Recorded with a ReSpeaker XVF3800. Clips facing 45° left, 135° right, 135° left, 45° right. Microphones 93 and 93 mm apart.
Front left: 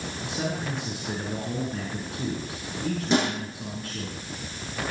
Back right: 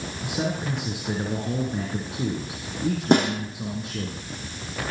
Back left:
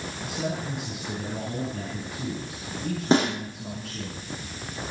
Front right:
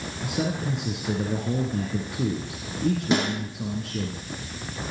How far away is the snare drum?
About 7.5 m.